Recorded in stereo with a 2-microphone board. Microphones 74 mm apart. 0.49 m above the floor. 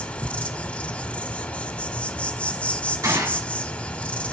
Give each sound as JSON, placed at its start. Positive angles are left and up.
{"t": 0.0, "sound": "an insect", "side_deg": 20, "distance_m": 0.8}
{"t": 3.0, "sound": "a gunshot", "side_deg": -45, "distance_m": 1.8}